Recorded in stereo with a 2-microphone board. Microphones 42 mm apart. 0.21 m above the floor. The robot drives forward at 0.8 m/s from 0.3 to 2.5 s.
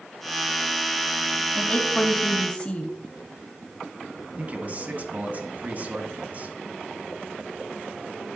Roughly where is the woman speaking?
Left.